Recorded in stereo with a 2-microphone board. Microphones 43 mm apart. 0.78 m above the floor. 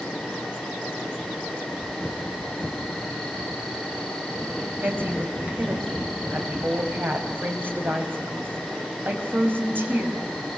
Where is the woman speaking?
55° right (ahead or behind), 5 m.